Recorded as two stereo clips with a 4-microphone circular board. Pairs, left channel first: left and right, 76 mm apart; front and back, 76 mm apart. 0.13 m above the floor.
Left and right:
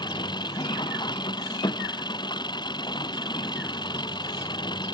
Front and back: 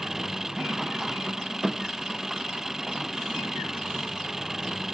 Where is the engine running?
95° left.